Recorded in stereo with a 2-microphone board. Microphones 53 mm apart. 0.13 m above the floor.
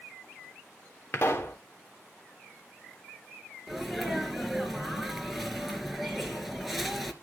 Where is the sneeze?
5° right (ahead or behind), 2.5 m.